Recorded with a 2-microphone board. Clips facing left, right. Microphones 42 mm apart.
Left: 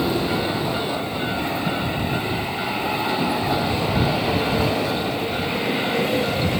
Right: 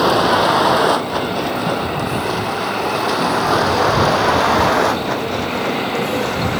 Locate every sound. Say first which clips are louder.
0.0 s a vehicle: right 8 dB; 75° right (ahead or behind); by 6.6 s 60° right (ahead or behind)